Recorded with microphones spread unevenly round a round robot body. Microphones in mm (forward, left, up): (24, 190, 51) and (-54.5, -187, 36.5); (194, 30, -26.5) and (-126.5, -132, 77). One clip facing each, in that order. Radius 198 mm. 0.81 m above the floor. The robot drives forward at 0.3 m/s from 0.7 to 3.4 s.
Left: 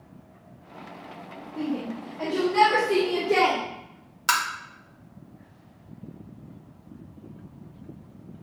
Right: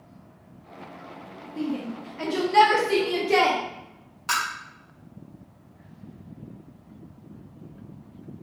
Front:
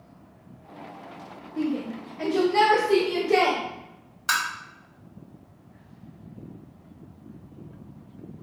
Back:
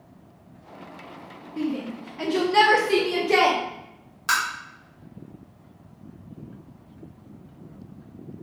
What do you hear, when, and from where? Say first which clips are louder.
1.6 s a shout: even, even; 70° right, 0.7 m; by 3.6 s 145° right, 0.8 m
4.3 s tapping: left 3 dB, back 2 dB; 120° left, 1.3 m